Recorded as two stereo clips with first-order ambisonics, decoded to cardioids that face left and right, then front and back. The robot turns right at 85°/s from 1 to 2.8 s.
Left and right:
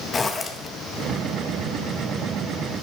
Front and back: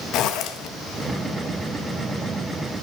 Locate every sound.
0.1 s a zipper: 25° left, 1.4 m